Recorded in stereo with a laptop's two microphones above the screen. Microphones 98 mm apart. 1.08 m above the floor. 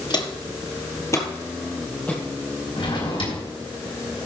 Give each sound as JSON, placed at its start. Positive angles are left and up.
{"t": 0.1, "sound": "footsteps", "side_deg": 50, "distance_m": 1.5}
{"t": 2.8, "sound": "a drawer", "side_deg": 70, "distance_m": 3.5}